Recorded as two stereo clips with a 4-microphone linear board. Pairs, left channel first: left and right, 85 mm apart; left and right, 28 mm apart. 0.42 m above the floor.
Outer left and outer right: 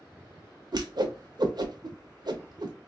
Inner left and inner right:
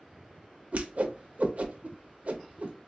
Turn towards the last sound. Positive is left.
turn(degrees=-55)  # may be behind; listen again after turning